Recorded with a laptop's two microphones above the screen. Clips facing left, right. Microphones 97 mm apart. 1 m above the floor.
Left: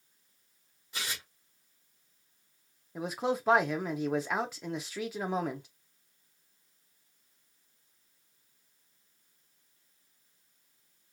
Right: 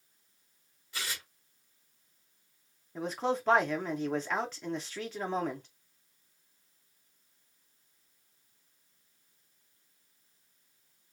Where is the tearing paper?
20° left (ahead or behind), 1.0 m.